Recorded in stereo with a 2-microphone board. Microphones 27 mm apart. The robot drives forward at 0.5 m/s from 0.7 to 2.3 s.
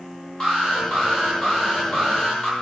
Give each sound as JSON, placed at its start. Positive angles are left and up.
{"t": 0.4, "sound": "an alarm", "side_deg": 25, "distance_m": 10.0}